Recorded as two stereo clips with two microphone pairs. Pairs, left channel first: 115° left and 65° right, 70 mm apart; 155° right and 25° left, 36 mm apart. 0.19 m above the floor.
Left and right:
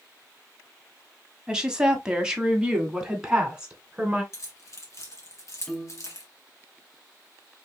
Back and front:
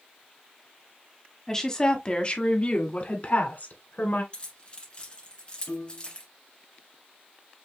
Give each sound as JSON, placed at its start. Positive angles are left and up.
{"t": 1.5, "sound": "a woman speaking", "azimuth_deg": -125, "distance_m": 1.2}
{"t": 4.3, "sound": "keys jangling", "azimuth_deg": 150, "distance_m": 1.7}
{"t": 5.7, "sound": "a piano", "azimuth_deg": -160, "distance_m": 1.2}